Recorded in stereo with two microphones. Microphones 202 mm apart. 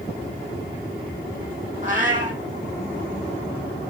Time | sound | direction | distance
1.8 | a cat meowing | 40° right (ahead or behind) | 1.1 m